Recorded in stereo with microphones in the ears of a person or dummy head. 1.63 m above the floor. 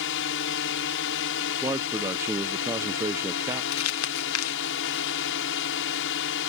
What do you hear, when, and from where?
0.0 s a drone: 65° left (ahead or behind)
1.6 s a man speaking: 15° right (ahead or behind)
3.7 s crumpling: 85° left